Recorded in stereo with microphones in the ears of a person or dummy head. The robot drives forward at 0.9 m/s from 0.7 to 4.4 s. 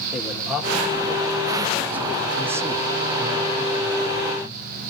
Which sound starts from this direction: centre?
A man speaking, at 0.1 s.